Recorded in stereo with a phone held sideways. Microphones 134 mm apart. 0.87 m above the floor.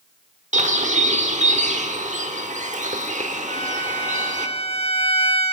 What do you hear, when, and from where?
0.5 s a bird: 65° right (ahead or behind), 1.1 m
3.5 s a violin: 50° left (ahead or behind), 1.0 m